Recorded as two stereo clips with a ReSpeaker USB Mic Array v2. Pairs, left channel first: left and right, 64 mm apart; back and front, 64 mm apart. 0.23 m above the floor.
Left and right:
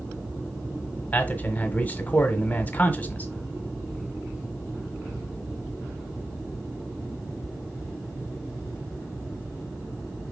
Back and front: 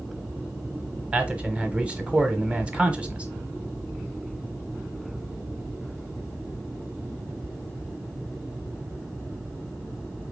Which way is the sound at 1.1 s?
60° left.